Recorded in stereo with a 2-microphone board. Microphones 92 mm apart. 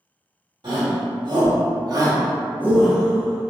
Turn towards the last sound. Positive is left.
turn(degrees=20)  # may be behind; listen again after turning